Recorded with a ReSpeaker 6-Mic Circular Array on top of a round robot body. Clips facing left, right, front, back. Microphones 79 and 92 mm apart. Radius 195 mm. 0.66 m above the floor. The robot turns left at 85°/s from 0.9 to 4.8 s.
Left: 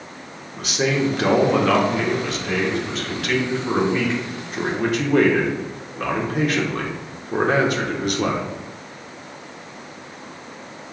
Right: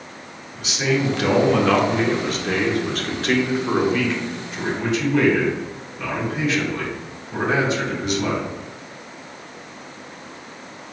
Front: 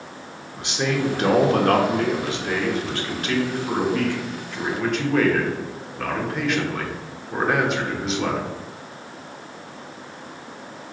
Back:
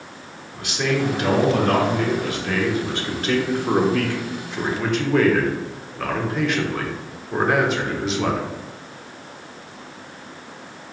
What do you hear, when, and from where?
0.5 s a man speaking: 65° left, 1.5 m; by 8.4 s 90° left, 1.5 m